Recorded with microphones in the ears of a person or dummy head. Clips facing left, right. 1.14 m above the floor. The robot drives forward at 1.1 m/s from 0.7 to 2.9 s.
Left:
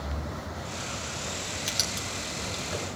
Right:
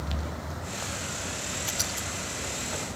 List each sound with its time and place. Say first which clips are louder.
1.7 s writing: even; 25° left (ahead or behind), 4.5 m; by 2.9 s 30° left (ahead or behind), 3.5 m